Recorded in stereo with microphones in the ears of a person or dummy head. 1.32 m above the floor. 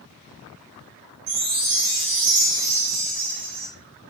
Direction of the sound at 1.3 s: 80° right.